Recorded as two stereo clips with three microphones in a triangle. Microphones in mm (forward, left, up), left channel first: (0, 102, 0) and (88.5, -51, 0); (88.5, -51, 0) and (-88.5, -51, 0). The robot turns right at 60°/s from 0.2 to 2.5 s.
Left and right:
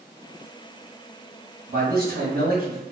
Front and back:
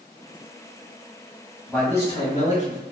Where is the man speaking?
85° right, 1.6 m; by 2.8 s 40° right, 1.6 m.